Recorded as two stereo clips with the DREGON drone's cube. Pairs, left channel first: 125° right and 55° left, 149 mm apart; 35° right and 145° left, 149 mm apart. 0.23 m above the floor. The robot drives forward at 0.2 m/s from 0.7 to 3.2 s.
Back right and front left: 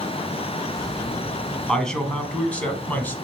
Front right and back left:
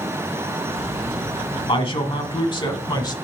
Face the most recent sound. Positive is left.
turn(degrees=-60)